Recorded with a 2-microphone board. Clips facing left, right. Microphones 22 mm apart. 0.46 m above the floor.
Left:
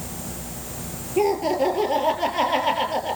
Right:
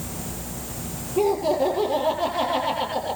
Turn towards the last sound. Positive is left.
turn(degrees=55)  # may be behind; listen again after turning